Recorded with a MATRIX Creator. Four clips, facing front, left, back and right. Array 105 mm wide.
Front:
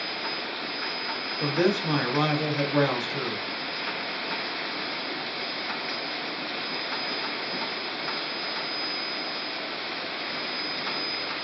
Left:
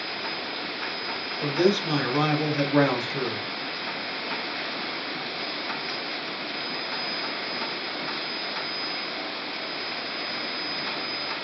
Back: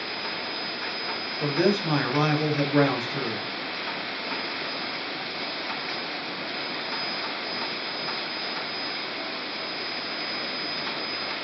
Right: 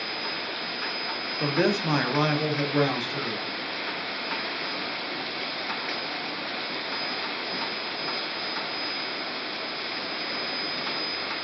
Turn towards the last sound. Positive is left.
turn(degrees=115)